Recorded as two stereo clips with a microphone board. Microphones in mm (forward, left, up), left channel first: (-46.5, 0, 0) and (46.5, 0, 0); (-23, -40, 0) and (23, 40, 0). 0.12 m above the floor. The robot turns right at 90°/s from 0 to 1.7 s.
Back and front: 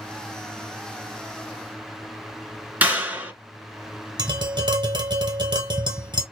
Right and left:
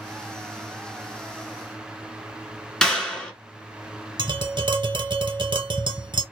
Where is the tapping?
30° left, 0.9 m.